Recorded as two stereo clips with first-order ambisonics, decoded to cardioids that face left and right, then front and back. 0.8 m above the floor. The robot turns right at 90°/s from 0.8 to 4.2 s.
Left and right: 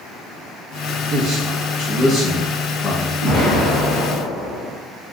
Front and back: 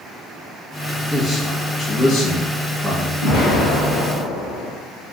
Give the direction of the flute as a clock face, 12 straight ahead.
No flute in this recording.